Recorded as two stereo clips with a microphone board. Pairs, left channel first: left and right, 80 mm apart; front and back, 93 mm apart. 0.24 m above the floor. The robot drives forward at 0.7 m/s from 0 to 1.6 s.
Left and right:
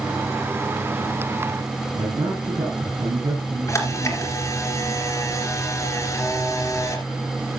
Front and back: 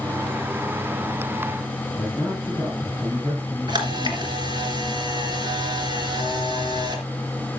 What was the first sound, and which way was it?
A man speaking, 90° right.